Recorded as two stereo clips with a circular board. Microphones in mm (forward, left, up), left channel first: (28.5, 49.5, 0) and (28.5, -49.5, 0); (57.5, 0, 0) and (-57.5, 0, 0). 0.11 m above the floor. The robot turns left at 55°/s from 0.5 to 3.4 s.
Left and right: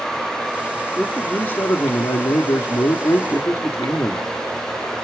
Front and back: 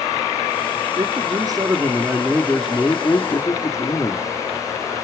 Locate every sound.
1.0 s a man speaking: straight behind, 2.0 m; by 4.3 s 45° left, 2.0 m